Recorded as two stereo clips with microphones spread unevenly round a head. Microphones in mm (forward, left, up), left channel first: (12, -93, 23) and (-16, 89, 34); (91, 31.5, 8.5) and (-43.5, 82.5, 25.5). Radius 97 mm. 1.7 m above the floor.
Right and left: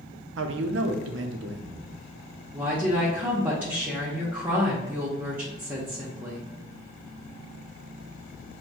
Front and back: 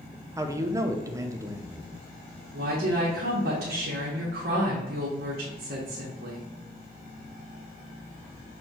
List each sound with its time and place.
0.4 s a man speaking: 95° left, 0.6 m
2.5 s a woman speaking: straight behind, 0.8 m